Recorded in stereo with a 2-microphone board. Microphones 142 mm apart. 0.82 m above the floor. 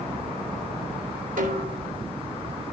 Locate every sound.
1.4 s a snare drum: 75° right (ahead or behind), 3.5 m